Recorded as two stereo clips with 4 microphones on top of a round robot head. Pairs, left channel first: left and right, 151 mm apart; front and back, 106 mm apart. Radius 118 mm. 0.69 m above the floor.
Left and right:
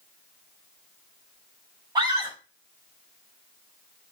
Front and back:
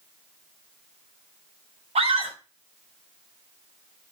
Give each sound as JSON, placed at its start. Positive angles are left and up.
{"t": 1.9, "sound": "a scream", "azimuth_deg": -155, "distance_m": 3.5}